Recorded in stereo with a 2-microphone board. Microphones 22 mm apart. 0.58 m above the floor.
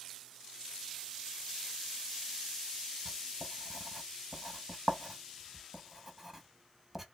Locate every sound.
3.0 s writing: 20° right (ahead or behind), 0.7 m